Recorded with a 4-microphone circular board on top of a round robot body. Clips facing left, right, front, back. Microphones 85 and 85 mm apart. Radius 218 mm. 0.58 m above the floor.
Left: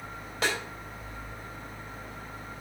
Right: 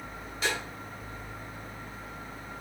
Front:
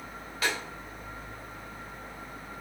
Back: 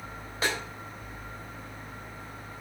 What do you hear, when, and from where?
0.4 s a snare drum: 115° left, 3 m